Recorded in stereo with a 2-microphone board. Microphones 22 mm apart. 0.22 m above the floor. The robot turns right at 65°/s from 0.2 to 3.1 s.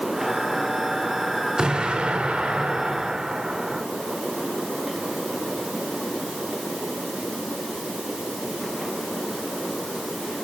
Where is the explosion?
130° right, 3 m; by 3.9 s 30° right, 3 m.